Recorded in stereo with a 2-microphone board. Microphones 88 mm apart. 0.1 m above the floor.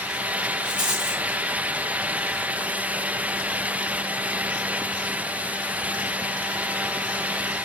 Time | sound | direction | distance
0.6 | a rattle | 50° right (ahead or behind) | 2 m